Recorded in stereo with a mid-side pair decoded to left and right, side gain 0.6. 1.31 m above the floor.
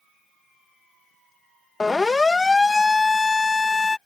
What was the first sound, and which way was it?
A siren, 20° left.